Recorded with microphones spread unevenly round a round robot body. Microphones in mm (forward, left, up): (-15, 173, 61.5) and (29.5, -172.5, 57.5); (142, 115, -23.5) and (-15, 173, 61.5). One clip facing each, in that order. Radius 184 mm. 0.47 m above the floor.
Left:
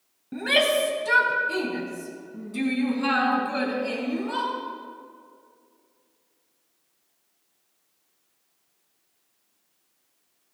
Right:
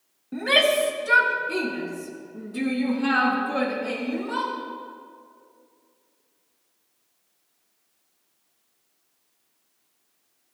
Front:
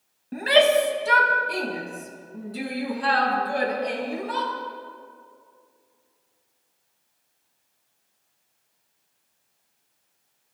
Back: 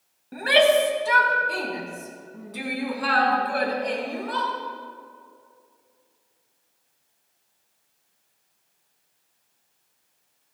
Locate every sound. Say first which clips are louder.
0.3 s a shout: right 1 dB, even; 30° left, 3.5 m; by 4.5 s 55° left, 7 m